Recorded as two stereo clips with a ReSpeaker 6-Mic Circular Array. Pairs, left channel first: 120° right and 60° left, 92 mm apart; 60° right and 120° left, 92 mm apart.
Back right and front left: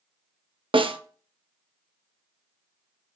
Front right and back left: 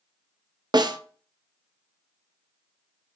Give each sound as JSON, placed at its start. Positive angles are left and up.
{"t": 0.7, "sound": "a snare drum", "azimuth_deg": 80, "distance_m": 0.5}